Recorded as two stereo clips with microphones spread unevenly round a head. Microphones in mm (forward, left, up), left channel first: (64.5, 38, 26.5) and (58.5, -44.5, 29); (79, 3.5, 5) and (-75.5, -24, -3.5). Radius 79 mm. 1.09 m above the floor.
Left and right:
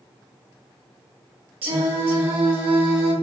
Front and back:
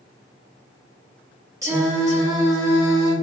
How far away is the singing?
About 1.2 m.